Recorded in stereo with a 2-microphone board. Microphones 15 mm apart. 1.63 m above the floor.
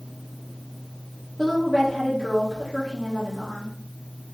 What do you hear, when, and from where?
1.4 s a woman speaking: 10° left (ahead or behind), 2.0 m